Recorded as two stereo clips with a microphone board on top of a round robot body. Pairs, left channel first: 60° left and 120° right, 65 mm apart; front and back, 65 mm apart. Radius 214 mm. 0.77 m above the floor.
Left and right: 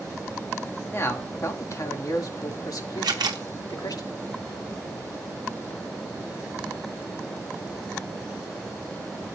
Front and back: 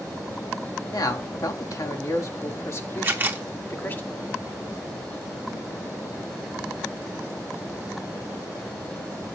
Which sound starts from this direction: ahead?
A man speaking, at 0.9 s.